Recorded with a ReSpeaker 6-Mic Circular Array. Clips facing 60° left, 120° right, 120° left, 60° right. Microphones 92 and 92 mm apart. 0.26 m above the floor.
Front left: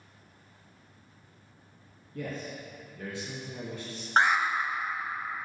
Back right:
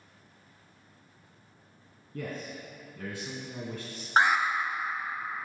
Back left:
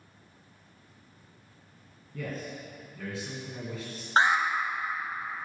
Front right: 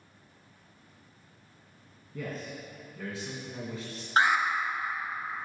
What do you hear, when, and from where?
2.1 s a man speaking: 150° right, 2 m
4.2 s an alarm: 160° left, 0.9 m